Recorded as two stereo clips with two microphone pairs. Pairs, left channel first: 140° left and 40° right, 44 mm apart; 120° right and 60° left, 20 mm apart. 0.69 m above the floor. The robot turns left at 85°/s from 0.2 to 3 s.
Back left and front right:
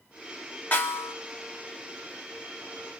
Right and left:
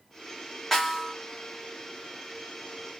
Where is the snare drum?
170° left, 1.8 m; by 1.1 s 130° left, 1.8 m.